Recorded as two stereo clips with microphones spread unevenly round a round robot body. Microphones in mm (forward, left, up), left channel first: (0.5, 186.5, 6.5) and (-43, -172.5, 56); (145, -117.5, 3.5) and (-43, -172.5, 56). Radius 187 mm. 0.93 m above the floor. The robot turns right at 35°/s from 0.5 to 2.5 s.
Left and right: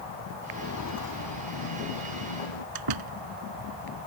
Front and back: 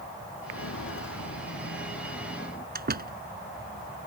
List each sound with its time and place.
0.5 s footsteps: 20° left; by 2.6 s 85° left
2.8 s a door slam: 125° right